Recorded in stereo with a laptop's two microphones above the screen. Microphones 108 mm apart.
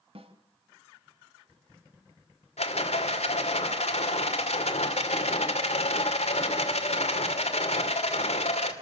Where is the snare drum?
60° right (ahead or behind), 1.4 m.